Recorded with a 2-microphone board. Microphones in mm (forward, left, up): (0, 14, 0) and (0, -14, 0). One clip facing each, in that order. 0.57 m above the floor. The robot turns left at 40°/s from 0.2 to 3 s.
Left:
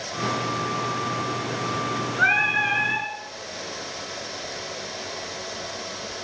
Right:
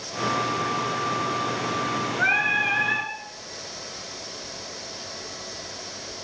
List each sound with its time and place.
2.2 s singing: 25° left, 1.4 m; by 3.1 s 10° right, 1.4 m